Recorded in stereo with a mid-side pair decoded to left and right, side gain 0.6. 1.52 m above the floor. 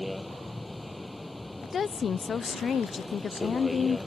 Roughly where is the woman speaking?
Ahead left.